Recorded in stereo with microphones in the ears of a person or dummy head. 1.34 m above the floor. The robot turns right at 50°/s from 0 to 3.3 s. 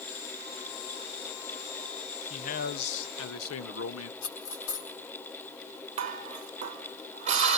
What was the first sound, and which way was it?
A man speaking, 35° left.